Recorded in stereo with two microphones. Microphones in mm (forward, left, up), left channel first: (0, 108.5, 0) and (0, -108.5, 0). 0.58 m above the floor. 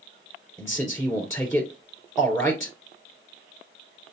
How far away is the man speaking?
About 2 m.